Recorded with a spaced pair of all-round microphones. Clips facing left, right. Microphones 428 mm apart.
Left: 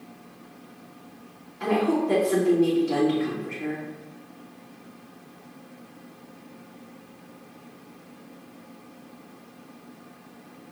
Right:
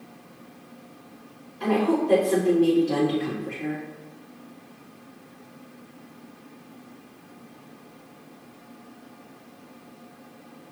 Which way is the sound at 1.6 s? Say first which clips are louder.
Right 1 dB; 15° left (ahead or behind).